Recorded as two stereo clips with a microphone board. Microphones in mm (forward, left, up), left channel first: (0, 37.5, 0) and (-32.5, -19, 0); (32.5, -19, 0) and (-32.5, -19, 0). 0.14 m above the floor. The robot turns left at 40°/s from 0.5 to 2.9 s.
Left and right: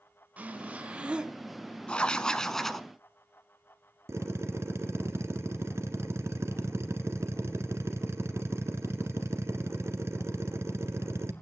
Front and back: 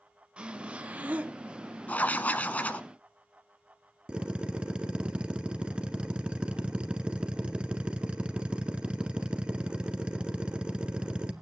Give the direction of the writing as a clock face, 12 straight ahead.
12 o'clock.